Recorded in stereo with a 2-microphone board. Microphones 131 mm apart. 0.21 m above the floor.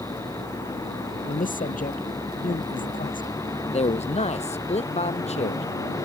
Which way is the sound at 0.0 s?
20° left (ahead or behind).